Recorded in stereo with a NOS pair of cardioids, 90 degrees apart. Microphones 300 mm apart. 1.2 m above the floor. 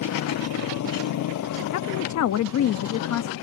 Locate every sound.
0.0 s a motorcycle: 70° left
1.7 s a woman speaking: 65° left